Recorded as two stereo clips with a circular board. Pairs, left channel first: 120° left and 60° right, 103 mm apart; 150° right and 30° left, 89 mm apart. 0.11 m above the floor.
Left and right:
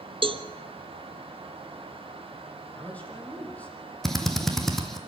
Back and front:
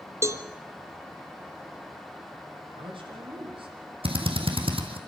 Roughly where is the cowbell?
Ahead right.